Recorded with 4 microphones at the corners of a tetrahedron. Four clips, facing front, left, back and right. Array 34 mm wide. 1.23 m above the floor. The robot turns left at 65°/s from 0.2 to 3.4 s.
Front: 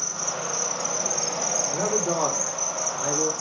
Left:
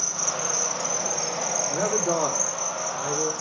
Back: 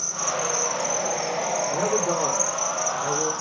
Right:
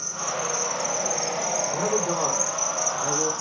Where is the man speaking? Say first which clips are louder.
Left 2 dB, back 2 dB; 85° left, 3 m; by 3.3 s 20° right, 3 m.